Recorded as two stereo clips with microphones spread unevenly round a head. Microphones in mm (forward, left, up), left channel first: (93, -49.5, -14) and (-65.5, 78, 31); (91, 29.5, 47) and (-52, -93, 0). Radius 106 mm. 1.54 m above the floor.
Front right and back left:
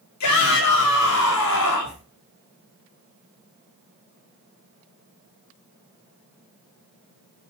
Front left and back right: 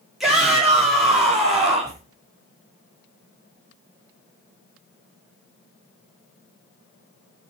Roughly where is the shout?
Ahead right.